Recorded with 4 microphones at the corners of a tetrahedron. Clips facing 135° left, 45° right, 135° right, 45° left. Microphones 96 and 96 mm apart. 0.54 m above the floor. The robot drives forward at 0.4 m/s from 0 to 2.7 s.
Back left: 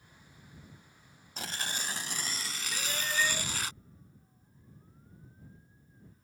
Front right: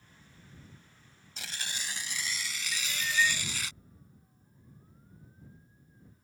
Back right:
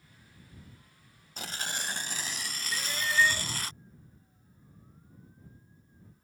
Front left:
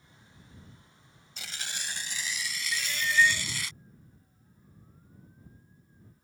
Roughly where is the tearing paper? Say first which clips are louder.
Back left 4 dB, back right 4 dB; behind.